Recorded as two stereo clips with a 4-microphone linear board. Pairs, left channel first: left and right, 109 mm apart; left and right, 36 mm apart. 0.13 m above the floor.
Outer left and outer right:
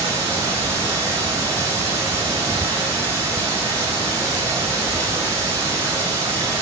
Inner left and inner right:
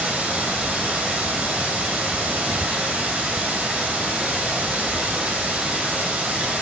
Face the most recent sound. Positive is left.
turn(degrees=-30)  # may be behind; listen again after turning